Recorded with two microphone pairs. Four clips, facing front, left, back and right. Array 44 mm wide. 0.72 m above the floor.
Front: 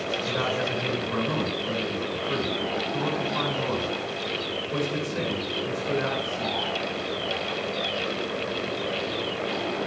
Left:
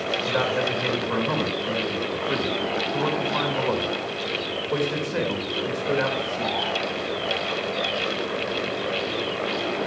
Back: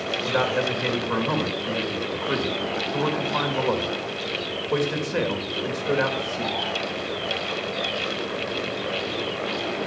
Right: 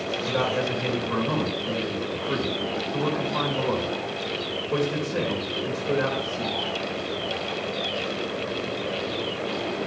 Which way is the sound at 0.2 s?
155° left.